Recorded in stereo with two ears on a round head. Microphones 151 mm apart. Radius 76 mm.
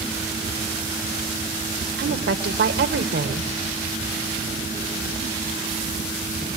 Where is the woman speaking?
65° right (ahead or behind), 1.8 m.